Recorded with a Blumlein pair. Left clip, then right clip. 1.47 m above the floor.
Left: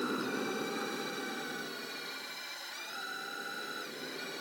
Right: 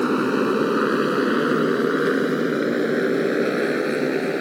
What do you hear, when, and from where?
0.0 s a motorcycle: 35° right; by 4.4 s 50° right